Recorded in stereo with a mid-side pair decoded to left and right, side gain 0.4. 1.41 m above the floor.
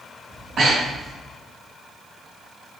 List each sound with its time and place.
0.3 s breathing: 60° right, 1.8 m